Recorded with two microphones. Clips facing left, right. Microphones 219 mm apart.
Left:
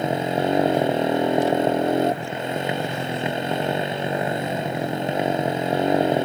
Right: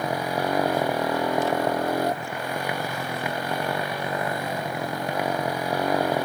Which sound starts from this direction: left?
A motorcycle, at 0.0 s.